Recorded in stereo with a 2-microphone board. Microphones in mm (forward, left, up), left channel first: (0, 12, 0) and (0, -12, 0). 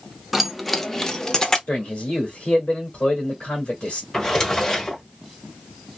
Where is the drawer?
20° left (ahead or behind), 1.2 m.